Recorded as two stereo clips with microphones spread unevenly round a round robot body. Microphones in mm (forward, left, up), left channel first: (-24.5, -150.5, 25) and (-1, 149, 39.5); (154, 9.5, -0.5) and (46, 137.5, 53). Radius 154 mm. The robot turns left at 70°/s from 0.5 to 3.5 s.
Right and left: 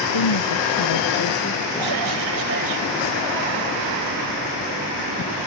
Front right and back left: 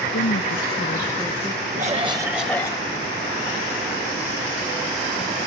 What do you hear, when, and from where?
0.1 s a woman speaking: 85° right; by 2.2 s 160° left
1.8 s a cough: 85° left; by 2.8 s 10° left